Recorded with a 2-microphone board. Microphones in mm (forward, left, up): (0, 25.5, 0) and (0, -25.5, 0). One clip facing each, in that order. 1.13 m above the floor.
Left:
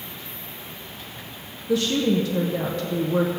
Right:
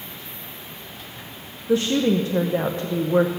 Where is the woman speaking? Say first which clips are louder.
Right 2 dB; 30° right (ahead or behind), 0.8 m.